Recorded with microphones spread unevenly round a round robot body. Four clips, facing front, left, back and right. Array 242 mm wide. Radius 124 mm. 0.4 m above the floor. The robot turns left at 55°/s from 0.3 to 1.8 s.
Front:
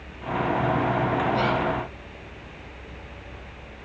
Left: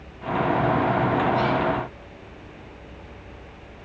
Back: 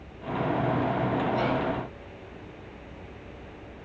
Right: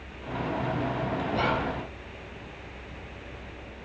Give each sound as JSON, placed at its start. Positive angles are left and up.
{"t": 1.3, "sound": "whispering", "azimuth_deg": -70, "distance_m": 1.1}